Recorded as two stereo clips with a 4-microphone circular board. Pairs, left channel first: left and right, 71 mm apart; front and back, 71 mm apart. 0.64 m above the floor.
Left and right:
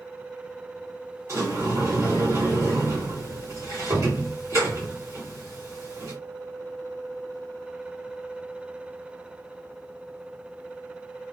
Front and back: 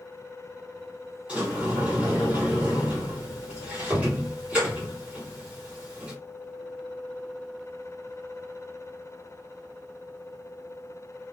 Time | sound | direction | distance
1.3 | a sliding door | 110° right | 1.8 m